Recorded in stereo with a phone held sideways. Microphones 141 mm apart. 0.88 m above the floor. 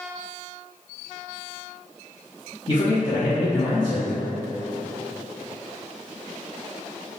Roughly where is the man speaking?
Left.